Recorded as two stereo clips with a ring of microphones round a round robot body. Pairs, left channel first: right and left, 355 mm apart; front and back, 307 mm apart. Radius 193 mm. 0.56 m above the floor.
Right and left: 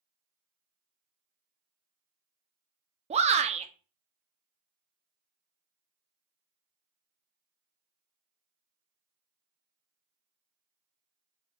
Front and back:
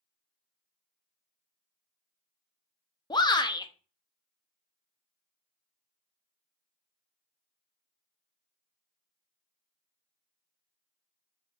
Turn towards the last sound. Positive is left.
turn(degrees=55)